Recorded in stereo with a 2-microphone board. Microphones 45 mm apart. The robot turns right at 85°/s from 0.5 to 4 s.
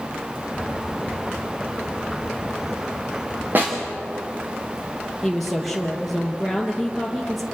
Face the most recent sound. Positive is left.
turn(degrees=5)  # may be behind; listen again after turning